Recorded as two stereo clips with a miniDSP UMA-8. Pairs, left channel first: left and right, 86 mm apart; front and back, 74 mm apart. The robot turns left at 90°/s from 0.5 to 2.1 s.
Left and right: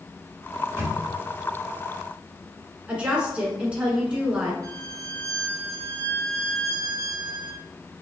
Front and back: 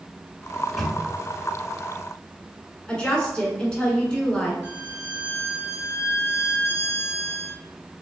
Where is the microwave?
60° right, 1.1 m; by 1.0 s 100° right, 1.1 m.